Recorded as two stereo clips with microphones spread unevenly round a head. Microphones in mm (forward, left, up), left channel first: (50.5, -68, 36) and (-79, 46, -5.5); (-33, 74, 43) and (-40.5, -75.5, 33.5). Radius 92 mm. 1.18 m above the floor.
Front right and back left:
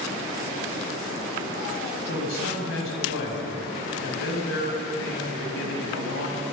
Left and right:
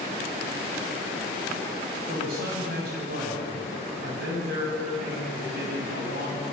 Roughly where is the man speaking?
Ahead right.